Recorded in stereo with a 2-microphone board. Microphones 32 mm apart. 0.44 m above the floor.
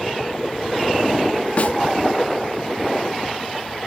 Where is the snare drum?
45° left (ahead or behind), 0.5 m.